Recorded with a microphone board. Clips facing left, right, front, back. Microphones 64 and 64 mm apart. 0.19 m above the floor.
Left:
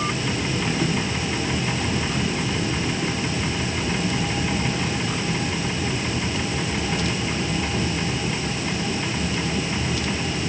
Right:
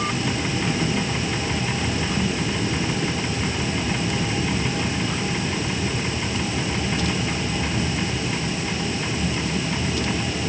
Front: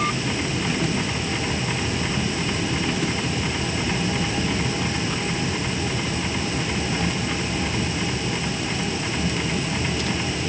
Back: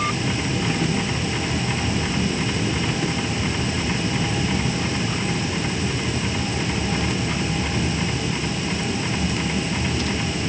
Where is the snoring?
I don't hear snoring.